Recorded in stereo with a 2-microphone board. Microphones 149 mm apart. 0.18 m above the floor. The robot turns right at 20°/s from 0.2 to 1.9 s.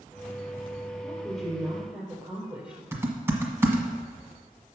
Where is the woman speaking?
5° left (ahead or behind), 4 m; by 2.8 s 10° right (ahead or behind), 4 m.